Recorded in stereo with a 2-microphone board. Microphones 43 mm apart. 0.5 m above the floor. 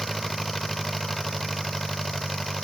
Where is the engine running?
Centre (ahead or behind).